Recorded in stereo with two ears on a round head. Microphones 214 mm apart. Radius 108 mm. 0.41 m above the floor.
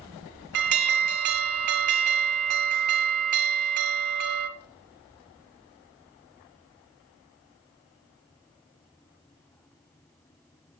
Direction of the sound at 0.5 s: 65° right (ahead or behind).